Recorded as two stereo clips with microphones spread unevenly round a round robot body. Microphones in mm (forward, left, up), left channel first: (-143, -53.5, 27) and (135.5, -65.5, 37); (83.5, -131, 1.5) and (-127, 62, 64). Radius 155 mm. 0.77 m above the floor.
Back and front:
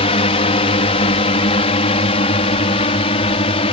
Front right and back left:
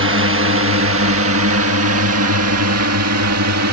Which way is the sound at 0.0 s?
130° left.